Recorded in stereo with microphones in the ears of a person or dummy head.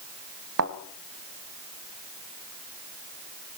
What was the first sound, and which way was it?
A thud, 75° right (ahead or behind).